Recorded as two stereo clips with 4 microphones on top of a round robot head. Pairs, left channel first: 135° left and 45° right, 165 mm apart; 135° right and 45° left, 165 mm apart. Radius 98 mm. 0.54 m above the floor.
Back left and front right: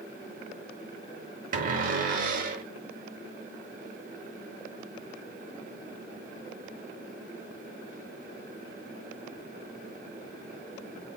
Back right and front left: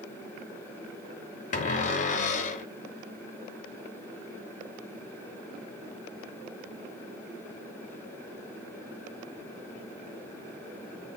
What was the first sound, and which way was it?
A cupboard door, 90° right.